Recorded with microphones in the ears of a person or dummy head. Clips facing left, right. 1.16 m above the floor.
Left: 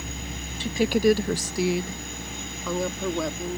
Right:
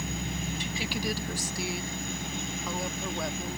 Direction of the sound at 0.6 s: 25° left (ahead or behind).